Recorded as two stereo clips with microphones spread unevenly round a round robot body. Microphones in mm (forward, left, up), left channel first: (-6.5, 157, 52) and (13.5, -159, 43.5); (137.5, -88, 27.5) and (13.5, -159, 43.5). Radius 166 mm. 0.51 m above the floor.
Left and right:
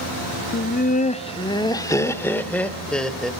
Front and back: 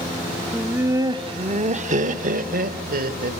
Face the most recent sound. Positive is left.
turn(degrees=-175)